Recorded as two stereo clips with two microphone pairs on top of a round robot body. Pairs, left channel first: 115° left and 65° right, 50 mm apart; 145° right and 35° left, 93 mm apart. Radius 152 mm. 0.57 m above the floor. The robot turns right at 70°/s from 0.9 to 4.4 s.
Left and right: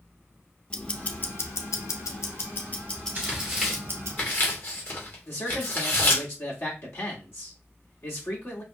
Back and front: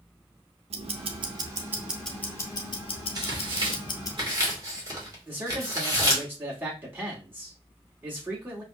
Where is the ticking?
45° left, 0.7 m; by 4.2 s 90° right, 0.7 m.